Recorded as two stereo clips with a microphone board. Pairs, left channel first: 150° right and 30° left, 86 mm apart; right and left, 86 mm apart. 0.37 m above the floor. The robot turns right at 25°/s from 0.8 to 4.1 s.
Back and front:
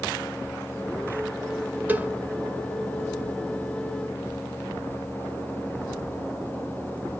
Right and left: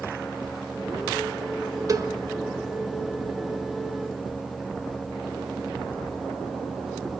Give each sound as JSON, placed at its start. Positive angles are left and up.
{"t": 1.9, "sound": "a cowbell", "azimuth_deg": 90, "distance_m": 0.6}